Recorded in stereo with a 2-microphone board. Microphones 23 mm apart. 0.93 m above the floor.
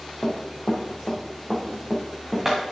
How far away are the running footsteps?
About 3 m.